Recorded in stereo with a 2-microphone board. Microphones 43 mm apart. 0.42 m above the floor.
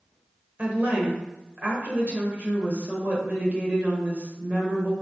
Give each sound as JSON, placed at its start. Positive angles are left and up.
{"t": 0.6, "sound": "a woman speaking", "side_deg": -35, "distance_m": 1.3}